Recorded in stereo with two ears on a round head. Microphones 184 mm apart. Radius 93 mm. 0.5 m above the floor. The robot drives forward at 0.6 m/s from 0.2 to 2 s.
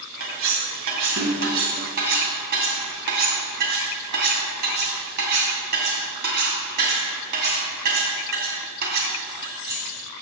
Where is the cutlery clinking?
80° right, 2 m; by 9.8 s 55° right (ahead or behind), 2.5 m.